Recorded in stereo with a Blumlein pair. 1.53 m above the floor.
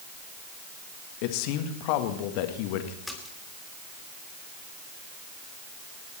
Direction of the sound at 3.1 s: 5° left.